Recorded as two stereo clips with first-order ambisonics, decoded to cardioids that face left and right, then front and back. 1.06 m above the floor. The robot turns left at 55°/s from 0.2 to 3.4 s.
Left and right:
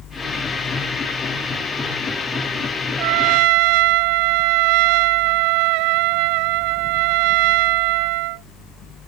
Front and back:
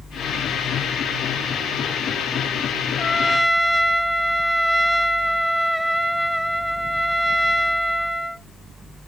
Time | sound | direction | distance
3.0 | a trumpet | 70° right | ?